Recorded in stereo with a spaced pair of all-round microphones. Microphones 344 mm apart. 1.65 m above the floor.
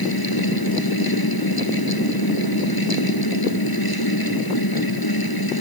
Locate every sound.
0.0 s a fan: 85° left